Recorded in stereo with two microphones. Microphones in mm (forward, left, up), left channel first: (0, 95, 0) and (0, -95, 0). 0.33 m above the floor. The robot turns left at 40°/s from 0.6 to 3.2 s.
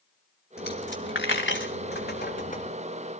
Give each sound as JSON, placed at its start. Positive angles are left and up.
{"t": 0.6, "sound": "a dropped coin", "side_deg": 60, "distance_m": 1.3}